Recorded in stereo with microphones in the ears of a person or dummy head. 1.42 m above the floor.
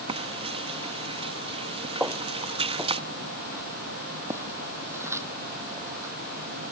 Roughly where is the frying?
Right.